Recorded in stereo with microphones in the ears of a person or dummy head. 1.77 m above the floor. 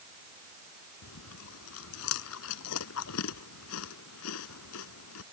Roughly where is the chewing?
Left.